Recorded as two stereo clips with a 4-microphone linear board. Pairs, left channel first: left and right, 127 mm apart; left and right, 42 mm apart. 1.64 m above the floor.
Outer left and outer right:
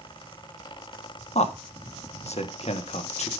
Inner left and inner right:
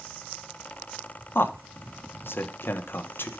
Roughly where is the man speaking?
Left.